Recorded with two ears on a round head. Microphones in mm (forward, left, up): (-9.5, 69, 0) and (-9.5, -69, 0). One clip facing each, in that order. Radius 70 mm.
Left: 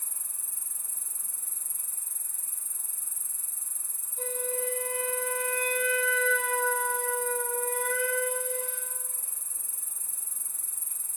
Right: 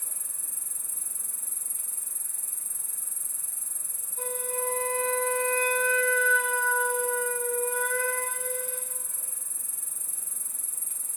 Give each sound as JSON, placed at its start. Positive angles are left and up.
{"t": 0.0, "sound": "an insect", "side_deg": -55, "distance_m": 1.0}
{"t": 4.2, "sound": "a flute", "side_deg": -50, "distance_m": 2.0}